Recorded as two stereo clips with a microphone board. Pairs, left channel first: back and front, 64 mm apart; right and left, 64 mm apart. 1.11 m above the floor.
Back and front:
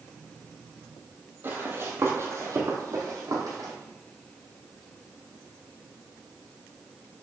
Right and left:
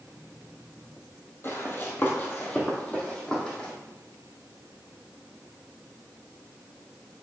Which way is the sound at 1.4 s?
50° right.